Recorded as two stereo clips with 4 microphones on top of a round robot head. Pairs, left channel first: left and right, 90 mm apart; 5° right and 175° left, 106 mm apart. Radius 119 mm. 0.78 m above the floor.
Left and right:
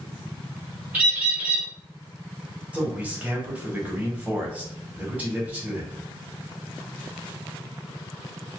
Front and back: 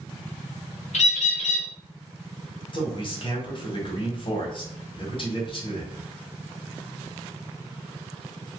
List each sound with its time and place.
0.9 s a bird: 15° right, 1.1 m
2.7 s a man speaking: 20° right, 1.6 m